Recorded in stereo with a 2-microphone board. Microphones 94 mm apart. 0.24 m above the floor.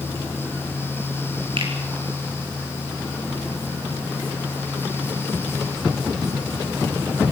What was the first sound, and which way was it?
A finger snap, 70° right (ahead or behind).